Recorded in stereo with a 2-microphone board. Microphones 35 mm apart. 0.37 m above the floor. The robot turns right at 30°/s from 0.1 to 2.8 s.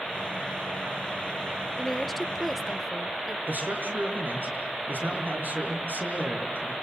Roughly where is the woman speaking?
Centre.